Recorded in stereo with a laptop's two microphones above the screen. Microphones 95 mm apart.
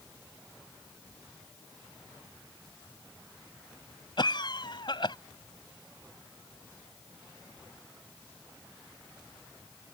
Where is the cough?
55° left (ahead or behind).